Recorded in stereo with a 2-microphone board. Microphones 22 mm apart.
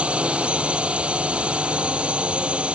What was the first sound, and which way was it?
A drone, 75° right (ahead or behind).